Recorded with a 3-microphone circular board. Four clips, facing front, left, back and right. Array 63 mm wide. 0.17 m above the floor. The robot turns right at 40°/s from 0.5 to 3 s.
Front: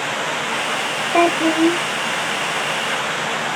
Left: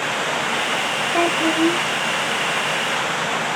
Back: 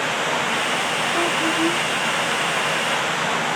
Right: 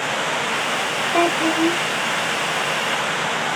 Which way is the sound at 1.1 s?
5° right.